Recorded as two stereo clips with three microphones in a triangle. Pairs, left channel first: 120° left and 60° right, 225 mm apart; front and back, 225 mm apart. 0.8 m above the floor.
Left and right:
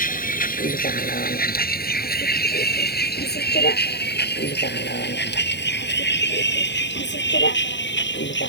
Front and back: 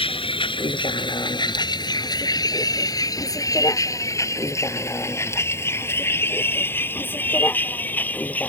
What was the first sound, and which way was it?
A vehicle, 65° left.